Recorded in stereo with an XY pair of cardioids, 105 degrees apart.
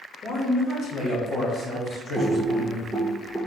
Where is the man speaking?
65° left, 2.0 m; by 2.9 s 40° left, 3.5 m.